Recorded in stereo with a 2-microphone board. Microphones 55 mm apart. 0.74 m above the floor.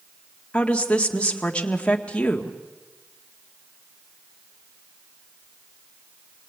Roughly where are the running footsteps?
I don't hear running footsteps.